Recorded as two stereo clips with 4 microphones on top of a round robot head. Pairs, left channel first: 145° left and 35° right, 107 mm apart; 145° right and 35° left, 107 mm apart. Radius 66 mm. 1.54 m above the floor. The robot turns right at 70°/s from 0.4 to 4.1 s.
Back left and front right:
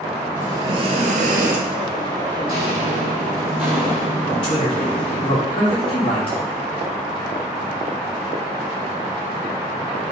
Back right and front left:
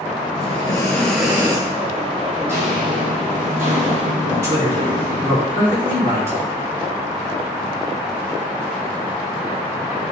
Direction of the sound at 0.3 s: 110° right.